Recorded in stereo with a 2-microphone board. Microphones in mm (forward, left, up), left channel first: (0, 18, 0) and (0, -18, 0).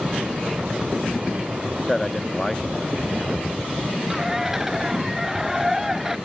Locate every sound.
1.9 s a man speaking: 10° left (ahead or behind)
4.1 s a bird: 5° right (ahead or behind)